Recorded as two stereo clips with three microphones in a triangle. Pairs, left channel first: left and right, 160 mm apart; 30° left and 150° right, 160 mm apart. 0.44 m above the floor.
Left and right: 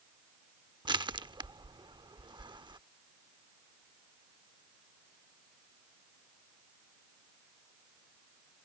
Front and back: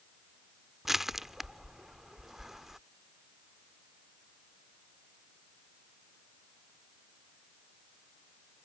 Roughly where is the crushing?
Ahead right.